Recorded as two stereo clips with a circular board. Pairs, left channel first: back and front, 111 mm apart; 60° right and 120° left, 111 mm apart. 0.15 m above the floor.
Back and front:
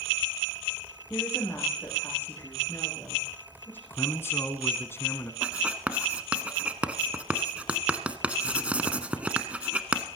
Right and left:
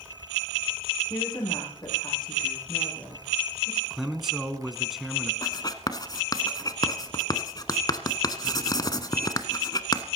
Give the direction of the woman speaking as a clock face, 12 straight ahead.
4 o'clock.